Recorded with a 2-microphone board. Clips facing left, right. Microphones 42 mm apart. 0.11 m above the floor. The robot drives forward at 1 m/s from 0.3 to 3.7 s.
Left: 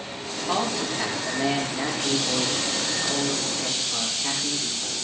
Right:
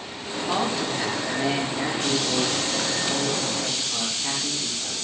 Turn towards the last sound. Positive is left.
turn(degrees=5)  # may be behind; listen again after turning